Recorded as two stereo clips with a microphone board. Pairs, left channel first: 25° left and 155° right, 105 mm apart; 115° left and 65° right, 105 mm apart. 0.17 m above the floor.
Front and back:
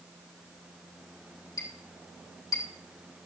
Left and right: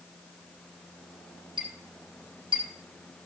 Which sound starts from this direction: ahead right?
A clink, at 1.6 s.